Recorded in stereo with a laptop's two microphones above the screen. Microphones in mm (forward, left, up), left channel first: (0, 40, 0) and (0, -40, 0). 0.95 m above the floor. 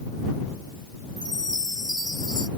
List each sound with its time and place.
1.2 s a chime: 60° left (ahead or behind)